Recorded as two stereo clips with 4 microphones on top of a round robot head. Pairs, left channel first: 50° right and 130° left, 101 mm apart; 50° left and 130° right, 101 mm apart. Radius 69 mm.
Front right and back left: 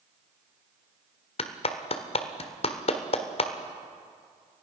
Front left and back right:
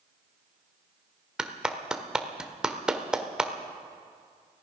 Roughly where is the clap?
Ahead right.